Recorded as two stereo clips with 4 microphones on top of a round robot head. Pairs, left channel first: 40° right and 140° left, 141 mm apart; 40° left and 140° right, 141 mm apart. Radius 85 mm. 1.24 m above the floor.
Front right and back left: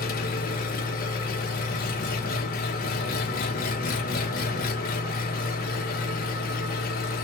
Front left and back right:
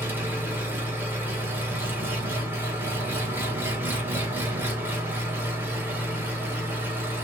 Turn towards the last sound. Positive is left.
turn(degrees=-65)